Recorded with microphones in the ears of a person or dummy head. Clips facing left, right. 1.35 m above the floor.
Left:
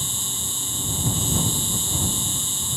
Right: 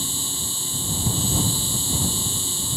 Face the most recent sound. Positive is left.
turn(degrees=-30)  # may be behind; listen again after turning